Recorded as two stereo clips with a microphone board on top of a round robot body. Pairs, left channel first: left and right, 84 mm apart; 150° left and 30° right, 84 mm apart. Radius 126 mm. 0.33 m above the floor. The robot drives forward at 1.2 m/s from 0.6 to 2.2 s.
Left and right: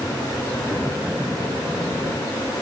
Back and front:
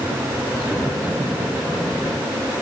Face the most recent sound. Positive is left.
No sound to turn to.